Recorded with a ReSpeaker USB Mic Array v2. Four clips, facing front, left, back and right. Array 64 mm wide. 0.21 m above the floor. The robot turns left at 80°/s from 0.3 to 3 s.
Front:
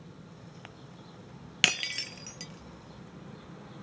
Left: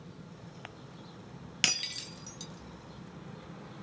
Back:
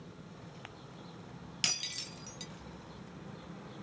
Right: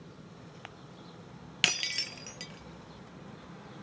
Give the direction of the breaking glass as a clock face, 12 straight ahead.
12 o'clock.